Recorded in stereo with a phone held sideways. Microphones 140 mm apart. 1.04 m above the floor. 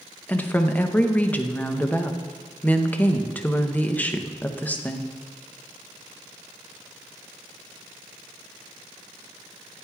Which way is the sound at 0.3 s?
10° left (ahead or behind).